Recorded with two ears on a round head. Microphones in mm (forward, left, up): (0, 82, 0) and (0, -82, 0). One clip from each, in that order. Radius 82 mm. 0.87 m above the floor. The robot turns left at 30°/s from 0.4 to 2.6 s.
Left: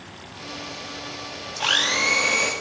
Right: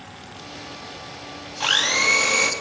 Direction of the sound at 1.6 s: 5° right (ahead or behind).